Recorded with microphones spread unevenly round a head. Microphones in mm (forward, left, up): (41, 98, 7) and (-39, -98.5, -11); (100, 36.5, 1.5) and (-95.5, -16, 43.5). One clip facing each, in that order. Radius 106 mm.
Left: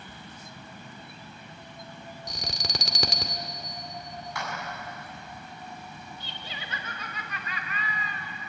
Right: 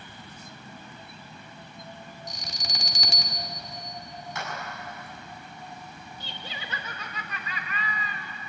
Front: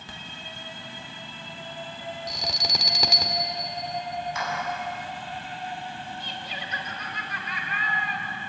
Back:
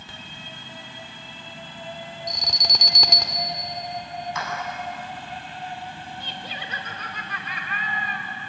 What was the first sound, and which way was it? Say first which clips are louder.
An alarm: left 7 dB, back 1 dB; 100° left.